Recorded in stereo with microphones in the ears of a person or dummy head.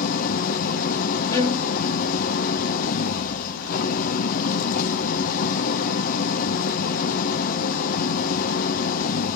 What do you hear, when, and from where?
0.0 s an engine running: 50° left (ahead or behind), 0.7 m
1.3 s a violin: 20° left (ahead or behind), 2.5 m